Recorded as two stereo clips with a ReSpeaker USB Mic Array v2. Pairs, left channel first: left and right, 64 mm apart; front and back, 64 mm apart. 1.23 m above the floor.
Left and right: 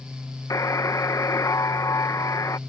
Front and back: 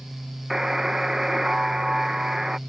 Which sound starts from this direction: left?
A buzzer, at 0.5 s.